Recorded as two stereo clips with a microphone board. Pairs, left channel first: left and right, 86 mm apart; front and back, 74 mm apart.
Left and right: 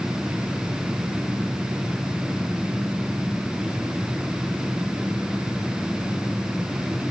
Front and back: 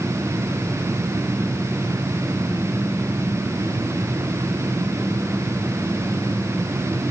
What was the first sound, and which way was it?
Only background noise.